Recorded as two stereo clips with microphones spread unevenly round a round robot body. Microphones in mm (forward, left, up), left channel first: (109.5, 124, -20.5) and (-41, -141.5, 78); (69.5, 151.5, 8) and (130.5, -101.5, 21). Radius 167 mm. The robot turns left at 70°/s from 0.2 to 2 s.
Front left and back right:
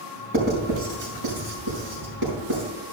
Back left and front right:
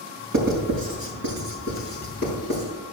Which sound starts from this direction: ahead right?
Writing, at 0.3 s.